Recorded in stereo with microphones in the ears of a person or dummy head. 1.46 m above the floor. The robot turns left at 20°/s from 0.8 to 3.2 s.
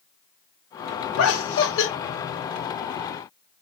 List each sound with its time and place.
1.2 s laughter: 85° left, 1.0 m; by 1.9 s 70° left (ahead or behind), 1.0 m